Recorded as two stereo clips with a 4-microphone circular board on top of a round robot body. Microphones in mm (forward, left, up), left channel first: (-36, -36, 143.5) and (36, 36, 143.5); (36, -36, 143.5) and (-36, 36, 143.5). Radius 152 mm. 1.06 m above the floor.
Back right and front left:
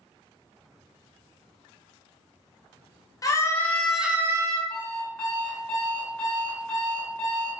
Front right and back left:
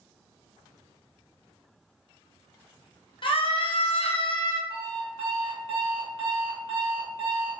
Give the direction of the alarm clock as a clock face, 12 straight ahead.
7 o'clock.